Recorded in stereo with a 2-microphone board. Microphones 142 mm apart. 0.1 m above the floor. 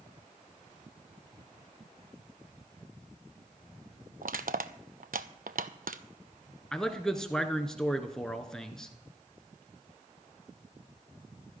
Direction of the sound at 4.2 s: 75° right (ahead or behind).